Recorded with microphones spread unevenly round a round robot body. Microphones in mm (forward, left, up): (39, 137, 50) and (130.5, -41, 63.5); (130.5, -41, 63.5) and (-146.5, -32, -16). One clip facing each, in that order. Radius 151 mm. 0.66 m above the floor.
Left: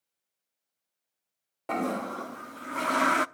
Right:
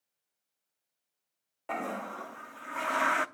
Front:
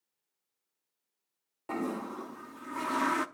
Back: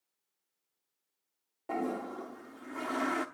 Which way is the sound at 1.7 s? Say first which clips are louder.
Left 7 dB, front 1 dB; 75° left.